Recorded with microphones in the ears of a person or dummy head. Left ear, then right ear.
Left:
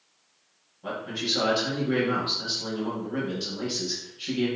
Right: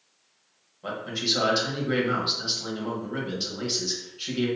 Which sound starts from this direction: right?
A man speaking, at 0.8 s.